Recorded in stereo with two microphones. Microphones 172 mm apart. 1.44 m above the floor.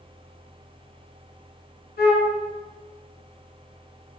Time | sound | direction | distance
2.0 | a flute | 65° left (ahead or behind) | 1.3 m